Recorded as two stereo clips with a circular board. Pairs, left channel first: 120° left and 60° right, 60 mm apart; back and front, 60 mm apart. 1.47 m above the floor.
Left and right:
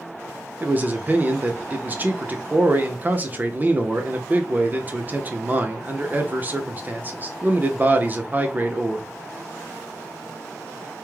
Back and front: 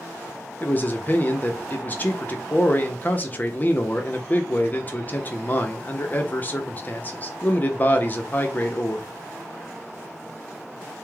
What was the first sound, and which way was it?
A man speaking, 120° right.